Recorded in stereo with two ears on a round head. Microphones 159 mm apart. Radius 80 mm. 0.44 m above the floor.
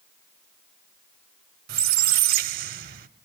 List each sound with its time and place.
1.7 s a squeak: 55° right (ahead or behind), 0.5 m